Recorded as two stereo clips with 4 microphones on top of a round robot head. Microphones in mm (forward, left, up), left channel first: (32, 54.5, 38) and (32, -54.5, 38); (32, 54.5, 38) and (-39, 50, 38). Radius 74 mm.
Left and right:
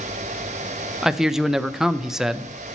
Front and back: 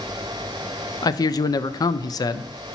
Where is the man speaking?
5° right, 0.5 m.